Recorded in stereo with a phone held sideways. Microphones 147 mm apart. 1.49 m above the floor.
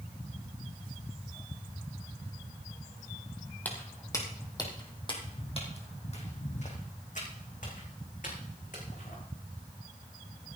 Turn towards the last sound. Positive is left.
turn(degrees=65)  # may be behind; listen again after turning